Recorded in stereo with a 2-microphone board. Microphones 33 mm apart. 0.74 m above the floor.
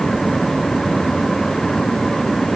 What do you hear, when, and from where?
Only background noise.